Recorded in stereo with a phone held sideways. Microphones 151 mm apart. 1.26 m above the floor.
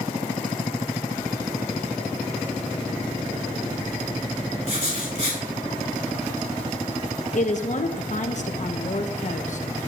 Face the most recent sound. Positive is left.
turn(degrees=55)  # may be behind; listen again after turning